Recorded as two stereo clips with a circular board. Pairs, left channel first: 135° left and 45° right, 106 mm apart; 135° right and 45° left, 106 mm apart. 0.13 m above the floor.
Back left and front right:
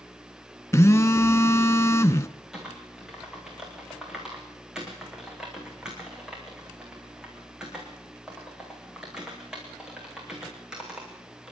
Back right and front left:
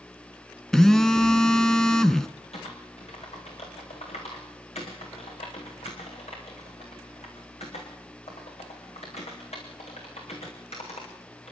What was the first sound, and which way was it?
A phone buzzing, 145° left.